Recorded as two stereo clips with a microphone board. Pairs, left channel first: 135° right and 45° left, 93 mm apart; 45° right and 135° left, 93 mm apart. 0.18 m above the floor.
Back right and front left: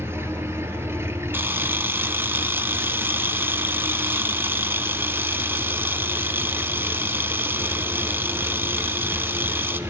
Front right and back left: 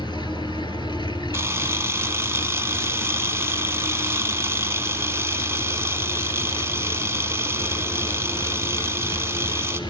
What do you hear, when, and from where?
0.0 s an engine running: 15° right, 1.7 m
1.3 s a camera shutter: 95° left, 0.9 m